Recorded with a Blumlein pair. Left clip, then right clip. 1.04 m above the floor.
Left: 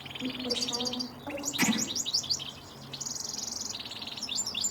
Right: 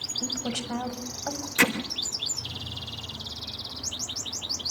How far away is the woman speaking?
About 7 m.